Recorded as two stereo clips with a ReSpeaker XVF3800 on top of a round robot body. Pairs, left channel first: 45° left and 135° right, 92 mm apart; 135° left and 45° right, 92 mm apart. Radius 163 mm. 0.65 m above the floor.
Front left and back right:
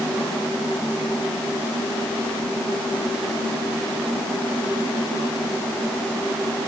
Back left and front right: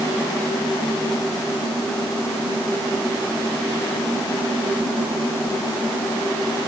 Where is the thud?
No thud in this recording.